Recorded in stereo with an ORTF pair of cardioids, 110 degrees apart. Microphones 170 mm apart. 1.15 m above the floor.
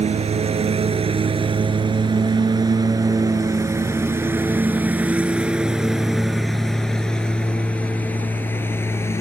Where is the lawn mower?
40° right; by 9.2 s 15° left.